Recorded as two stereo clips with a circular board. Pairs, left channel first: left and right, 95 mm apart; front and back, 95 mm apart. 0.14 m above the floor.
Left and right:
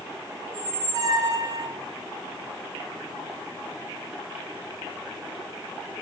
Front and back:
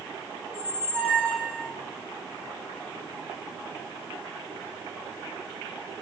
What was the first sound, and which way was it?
A squeak, 105° right.